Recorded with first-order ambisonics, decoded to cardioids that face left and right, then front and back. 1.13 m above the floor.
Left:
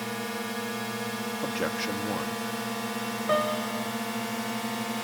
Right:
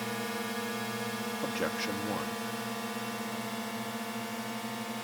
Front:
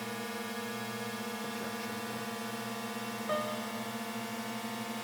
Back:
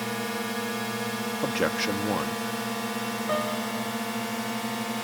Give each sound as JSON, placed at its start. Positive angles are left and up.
{"t": 0.0, "sound": "a drone", "azimuth_deg": 165}
{"t": 1.4, "sound": "a man speaking", "azimuth_deg": 170}
{"t": 3.3, "sound": "a piano", "azimuth_deg": 105}